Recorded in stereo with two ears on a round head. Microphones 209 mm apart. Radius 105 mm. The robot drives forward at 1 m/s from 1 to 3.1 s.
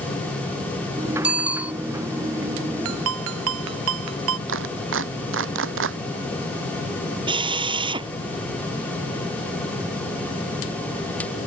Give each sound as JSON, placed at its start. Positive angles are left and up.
{"t": 1.2, "sound": "a bicycle bell", "side_deg": -5}
{"t": 2.9, "sound": "a ringtone", "side_deg": -70}
{"t": 4.5, "sound": "a clap", "side_deg": -60}
{"t": 7.3, "sound": "a drill", "side_deg": -20}